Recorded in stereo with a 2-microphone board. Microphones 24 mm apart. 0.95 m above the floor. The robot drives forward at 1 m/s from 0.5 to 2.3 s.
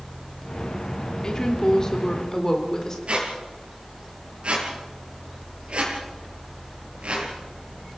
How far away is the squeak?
About 4.5 m.